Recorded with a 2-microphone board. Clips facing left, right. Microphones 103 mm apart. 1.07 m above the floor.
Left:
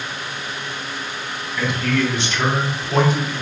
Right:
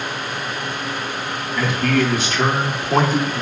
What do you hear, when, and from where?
1.6 s a man speaking: 50° right (ahead or behind), 1.9 m